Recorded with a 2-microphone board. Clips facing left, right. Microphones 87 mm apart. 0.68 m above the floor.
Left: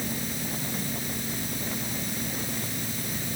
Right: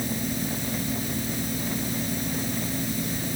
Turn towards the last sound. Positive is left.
No sound to turn to.